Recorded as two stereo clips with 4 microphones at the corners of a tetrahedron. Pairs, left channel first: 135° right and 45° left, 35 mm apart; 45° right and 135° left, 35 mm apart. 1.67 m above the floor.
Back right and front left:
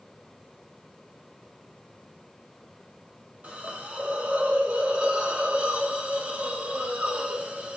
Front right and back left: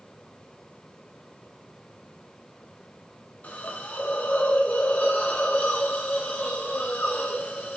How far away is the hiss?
About 0.7 m.